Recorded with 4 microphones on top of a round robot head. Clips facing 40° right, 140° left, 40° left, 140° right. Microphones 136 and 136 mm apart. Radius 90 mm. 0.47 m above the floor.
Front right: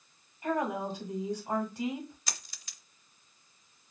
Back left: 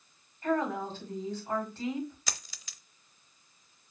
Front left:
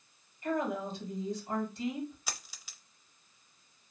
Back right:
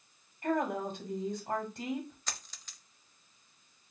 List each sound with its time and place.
0.4 s a woman speaking: 120° right, 1.9 m
2.3 s a dropped coin: 125° left, 0.7 m